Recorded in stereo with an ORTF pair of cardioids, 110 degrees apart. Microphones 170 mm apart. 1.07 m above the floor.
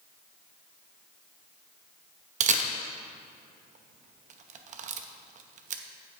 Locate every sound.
2.4 s a camera shutter: 45° right, 0.7 m